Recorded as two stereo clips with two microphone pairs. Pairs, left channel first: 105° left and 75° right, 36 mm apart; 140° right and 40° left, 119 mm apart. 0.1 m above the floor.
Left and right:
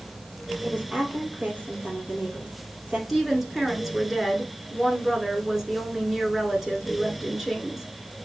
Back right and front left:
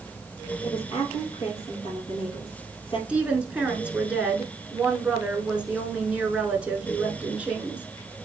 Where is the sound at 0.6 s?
115° right, 3 m.